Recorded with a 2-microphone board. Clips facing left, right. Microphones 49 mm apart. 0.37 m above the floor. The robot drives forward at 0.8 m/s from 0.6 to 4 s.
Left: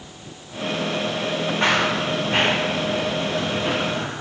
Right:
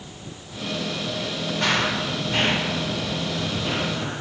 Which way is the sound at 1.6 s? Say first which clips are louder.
Left 2 dB; 30° left (ahead or behind).